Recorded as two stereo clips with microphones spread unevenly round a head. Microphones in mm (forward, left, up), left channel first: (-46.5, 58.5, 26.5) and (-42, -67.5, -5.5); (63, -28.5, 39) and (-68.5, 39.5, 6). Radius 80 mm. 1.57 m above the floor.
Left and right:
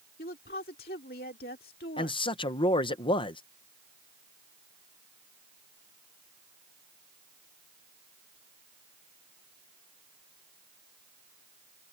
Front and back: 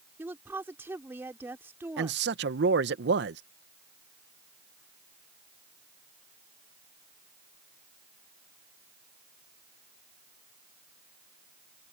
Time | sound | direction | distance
0.2 | a woman speaking | 75° left | ?
2.0 | a man speaking | 135° left | ?